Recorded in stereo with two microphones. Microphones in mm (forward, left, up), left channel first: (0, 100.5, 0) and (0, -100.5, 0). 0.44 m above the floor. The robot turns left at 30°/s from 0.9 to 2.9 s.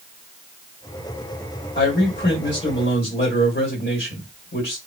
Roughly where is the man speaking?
Left.